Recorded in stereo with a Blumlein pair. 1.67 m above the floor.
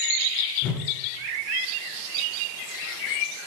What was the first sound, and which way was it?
A whoosh, 30° left.